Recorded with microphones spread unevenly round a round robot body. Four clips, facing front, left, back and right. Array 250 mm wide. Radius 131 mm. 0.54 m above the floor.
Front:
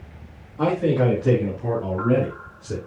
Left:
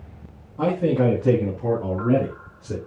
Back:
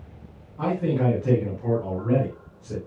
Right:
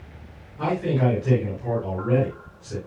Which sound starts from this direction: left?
A man speaking, at 0.6 s.